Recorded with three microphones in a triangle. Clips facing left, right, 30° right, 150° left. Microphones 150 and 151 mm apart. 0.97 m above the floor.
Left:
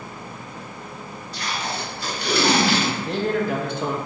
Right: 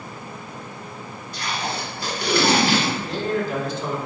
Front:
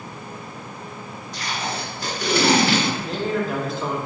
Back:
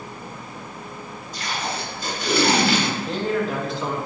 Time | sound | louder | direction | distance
1.3 | tape being pulled | right 1 dB, even | 50° right | 1.6 m
3.0 | a man speaking | left 2 dB, back 1 dB | 60° left | 0.7 m